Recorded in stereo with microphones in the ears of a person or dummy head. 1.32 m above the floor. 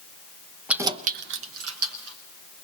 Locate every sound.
0.7 s keys jangling: 5° right (ahead or behind), 0.7 m; by 2.2 s 75° right (ahead or behind), 1.5 m